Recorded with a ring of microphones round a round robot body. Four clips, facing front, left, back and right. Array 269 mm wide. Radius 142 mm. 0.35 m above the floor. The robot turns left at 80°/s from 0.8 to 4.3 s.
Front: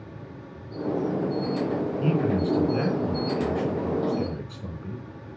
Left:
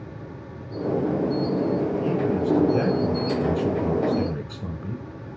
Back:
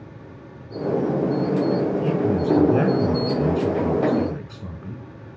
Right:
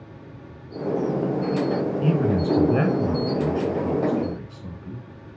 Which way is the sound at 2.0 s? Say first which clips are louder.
Right 1 dB, back 3 dB; 70° right.